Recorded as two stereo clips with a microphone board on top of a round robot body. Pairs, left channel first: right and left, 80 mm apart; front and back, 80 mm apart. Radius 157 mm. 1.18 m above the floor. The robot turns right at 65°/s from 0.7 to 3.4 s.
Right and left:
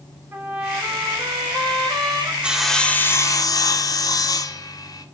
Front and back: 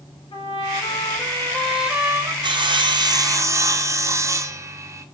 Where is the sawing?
165° left, 1.5 m; by 5.0 s 130° right, 1.5 m.